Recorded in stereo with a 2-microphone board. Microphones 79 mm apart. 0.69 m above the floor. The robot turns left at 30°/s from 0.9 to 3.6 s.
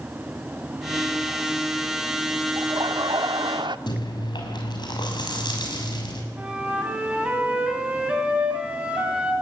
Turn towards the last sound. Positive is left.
turn(degrees=-10)  # may be behind; listen again after turning